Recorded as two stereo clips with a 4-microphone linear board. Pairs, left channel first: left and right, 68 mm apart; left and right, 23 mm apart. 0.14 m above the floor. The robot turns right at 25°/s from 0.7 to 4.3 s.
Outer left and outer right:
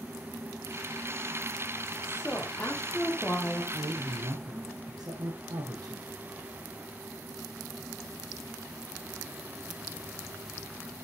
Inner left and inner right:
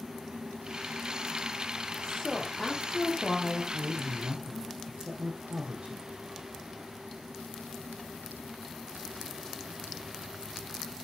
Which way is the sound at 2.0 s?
145° left.